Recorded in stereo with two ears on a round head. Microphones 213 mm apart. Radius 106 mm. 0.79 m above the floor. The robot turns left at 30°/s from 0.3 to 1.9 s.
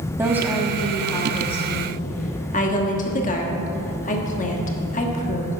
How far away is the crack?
I don't hear a crack.